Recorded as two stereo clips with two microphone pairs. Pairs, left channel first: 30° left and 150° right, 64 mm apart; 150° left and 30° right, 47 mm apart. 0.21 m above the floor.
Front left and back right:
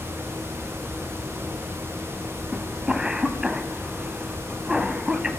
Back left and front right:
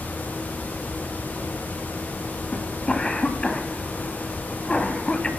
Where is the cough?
155° left, 1.0 m.